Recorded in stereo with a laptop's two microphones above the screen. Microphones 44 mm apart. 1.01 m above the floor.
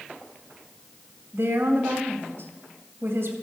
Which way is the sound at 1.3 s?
65° right (ahead or behind).